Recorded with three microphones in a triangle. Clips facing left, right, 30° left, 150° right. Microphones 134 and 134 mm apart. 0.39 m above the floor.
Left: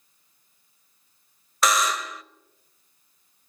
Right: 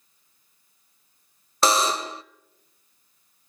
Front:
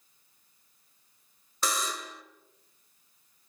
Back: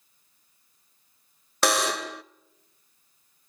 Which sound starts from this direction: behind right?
A buzzer, at 1.6 s.